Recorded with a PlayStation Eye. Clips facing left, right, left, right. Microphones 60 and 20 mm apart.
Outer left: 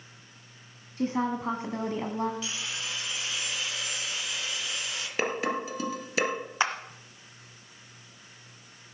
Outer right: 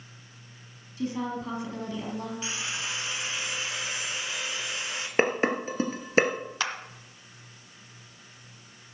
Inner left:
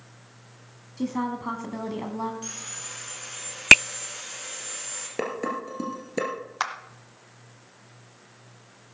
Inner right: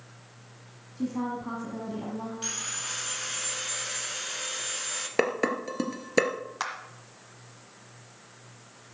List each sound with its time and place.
1.0 s a woman speaking: 40° left (ahead or behind), 1.5 m
2.4 s sawing: 30° right (ahead or behind), 1.9 m
5.2 s dishes clattering: 35° right (ahead or behind), 2 m
6.6 s a clap: 25° left (ahead or behind), 1.3 m